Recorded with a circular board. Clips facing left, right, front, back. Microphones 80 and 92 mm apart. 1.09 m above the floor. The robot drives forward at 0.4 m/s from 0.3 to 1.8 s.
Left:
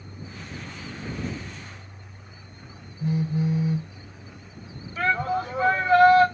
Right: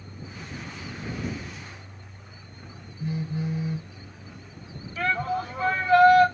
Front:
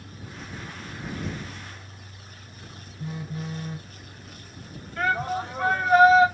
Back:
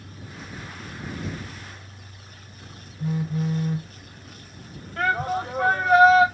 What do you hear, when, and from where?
3.0 s a phone buzzing: 160° left, 2.5 m
5.0 s a shout: 160° left, 2.5 m